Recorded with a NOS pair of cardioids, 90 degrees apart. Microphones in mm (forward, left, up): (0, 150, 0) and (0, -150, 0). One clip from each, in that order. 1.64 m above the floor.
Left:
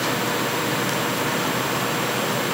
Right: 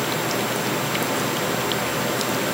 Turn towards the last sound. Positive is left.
No sound to turn to.